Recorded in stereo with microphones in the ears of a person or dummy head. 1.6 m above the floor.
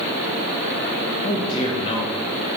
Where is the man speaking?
30° left (ahead or behind), 0.8 m.